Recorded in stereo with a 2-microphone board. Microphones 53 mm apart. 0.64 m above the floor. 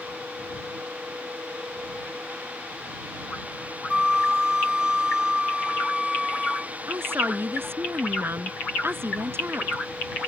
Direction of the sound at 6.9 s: 45° right (ahead or behind).